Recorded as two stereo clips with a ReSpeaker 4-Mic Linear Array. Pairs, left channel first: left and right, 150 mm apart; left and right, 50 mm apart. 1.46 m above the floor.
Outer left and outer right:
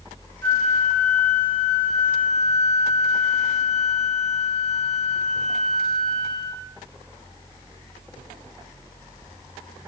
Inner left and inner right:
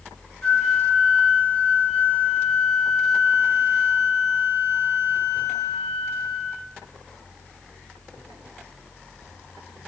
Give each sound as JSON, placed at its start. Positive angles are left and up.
{"t": 0.4, "sound": "a flute", "side_deg": 15, "distance_m": 7.0}